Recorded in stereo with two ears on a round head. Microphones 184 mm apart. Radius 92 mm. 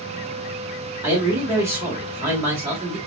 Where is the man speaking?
15° right (ahead or behind), 1.6 m.